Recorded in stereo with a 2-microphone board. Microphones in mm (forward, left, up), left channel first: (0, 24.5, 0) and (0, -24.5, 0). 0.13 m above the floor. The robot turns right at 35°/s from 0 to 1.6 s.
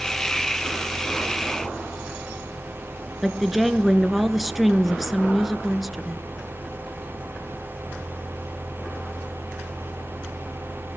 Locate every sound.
3.2 s a woman speaking: centre (ahead or behind), 1.8 m